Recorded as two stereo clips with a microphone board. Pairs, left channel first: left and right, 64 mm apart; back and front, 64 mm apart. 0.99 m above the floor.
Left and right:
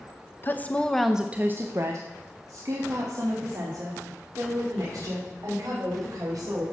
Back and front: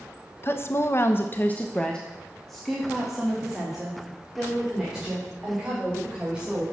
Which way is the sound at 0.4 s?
140° left.